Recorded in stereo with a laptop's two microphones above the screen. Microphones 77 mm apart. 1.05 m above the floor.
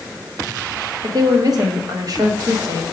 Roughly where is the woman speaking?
Right.